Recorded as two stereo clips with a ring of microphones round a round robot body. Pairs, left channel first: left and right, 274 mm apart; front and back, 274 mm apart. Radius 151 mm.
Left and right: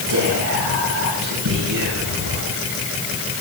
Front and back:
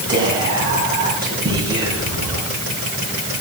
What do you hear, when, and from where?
0.1 s whispering: 105° right, 7 m